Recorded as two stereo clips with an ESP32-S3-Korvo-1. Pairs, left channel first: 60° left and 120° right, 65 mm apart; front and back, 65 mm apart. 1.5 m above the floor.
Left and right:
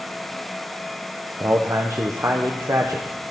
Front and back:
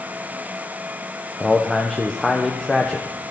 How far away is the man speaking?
About 0.7 m.